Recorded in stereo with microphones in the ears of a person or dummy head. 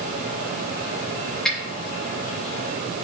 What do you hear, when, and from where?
1.4 s a finger snap: 5° left (ahead or behind), 3 m